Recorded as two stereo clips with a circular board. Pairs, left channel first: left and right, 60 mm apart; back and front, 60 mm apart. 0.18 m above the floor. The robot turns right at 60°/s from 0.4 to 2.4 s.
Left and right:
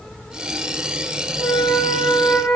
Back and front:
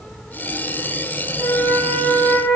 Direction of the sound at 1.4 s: 50° right.